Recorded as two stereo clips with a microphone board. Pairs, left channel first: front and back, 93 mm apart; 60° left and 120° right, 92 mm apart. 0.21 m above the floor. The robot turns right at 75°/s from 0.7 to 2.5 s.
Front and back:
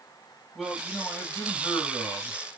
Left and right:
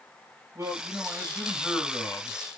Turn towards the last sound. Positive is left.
turn(degrees=45)